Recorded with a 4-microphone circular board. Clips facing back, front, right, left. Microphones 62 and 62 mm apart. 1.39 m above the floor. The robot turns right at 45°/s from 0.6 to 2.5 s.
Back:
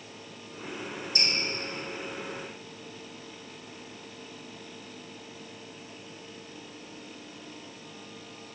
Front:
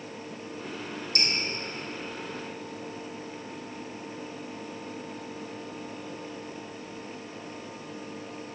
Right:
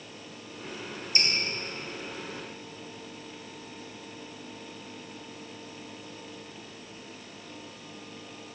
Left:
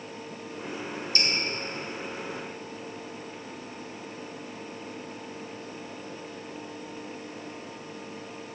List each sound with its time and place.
1.1 s dripping: 20° right, 2 m; by 1.3 s 15° right, 2 m